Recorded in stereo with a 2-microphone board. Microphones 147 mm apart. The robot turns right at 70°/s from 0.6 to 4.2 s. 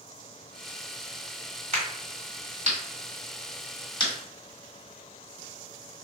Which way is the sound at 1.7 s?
50° right (ahead or behind).